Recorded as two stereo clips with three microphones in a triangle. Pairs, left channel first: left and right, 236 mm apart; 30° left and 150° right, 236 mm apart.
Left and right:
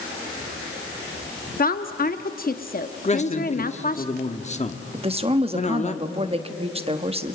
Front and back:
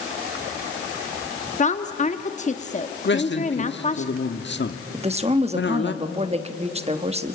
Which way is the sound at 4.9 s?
125° right.